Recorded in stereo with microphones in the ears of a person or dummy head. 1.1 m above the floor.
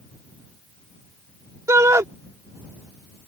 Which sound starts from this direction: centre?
A shout, at 1.7 s.